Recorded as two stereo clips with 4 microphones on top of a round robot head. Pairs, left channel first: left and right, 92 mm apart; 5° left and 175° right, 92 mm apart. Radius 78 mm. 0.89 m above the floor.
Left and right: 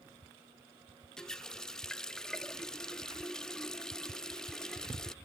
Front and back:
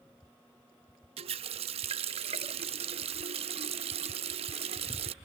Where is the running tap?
175° left.